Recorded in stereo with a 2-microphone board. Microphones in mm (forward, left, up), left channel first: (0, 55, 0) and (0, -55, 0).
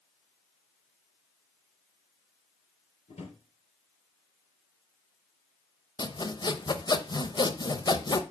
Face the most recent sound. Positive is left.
turn(degrees=40)  # may be behind; listen again after turning